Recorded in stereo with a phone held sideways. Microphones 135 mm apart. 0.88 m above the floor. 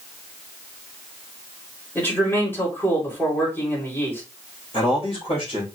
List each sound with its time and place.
1.9 s a man speaking: 15° left (ahead or behind), 2.5 m
4.7 s a man speaking: 40° left (ahead or behind), 3 m